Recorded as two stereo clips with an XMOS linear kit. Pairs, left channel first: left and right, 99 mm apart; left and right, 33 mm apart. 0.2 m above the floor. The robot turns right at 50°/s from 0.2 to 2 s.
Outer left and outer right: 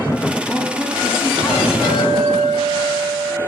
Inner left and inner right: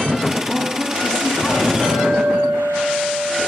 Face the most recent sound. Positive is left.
turn(degrees=40)  # may be behind; listen again after turning